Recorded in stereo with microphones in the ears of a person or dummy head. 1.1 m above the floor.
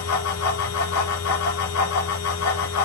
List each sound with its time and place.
0.0 s a fan: 75° left (ahead or behind), 4 m